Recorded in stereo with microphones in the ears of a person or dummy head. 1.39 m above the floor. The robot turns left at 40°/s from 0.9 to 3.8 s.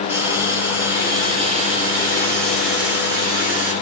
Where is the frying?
15° right, 1.7 m; by 3.7 s 130° right, 1.7 m.